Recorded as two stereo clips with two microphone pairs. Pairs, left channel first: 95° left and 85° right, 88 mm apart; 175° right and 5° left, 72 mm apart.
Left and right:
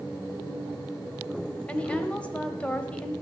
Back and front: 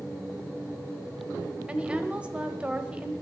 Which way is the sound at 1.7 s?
45° left.